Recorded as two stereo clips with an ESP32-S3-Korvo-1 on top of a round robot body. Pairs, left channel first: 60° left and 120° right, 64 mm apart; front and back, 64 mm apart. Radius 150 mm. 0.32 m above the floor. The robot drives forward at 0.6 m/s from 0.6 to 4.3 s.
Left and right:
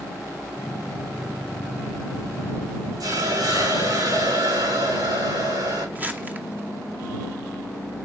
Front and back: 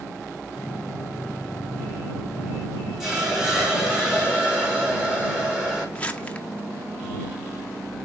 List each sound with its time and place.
3.0 s a hiss: 95° right, 5.5 m; by 5.8 s 105° right, 6 m
6.0 s crumpling: 65° right, 2 m